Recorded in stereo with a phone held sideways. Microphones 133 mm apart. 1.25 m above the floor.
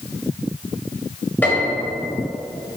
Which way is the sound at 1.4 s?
10° left (ahead or behind).